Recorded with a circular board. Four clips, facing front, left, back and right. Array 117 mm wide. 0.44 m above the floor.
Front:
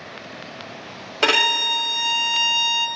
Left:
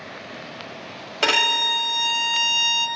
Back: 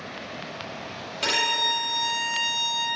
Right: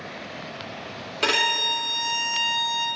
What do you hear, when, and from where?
1.2 s a violin: 35° left, 1.5 m